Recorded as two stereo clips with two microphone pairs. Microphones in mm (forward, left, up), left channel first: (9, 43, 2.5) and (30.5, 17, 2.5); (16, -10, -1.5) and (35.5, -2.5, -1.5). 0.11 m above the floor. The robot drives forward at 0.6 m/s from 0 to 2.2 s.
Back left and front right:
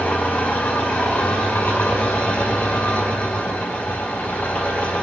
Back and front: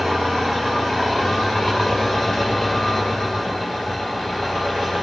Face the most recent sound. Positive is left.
turn(degrees=145)